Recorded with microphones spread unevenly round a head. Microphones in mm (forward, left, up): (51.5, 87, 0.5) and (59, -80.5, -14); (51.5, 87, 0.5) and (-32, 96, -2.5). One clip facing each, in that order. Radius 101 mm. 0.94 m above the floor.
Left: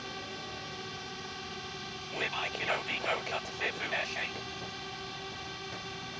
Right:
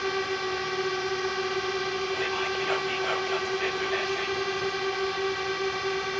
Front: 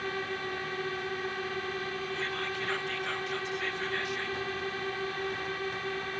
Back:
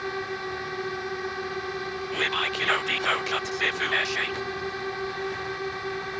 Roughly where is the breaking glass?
I don't hear breaking glass.